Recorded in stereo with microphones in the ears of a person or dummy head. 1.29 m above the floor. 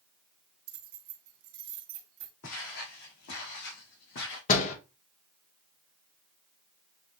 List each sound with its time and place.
0.7 s keys jangling: 75° right (ahead or behind), 1.3 m
2.4 s footsteps: 50° left (ahead or behind), 3 m; by 4.4 s 70° left (ahead or behind), 5.5 m
4.5 s a door slam: 45° left (ahead or behind), 0.9 m